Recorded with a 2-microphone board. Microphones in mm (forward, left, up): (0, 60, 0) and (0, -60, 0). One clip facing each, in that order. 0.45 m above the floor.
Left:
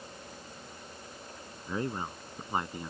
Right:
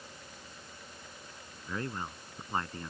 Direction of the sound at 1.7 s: 20° left (ahead or behind).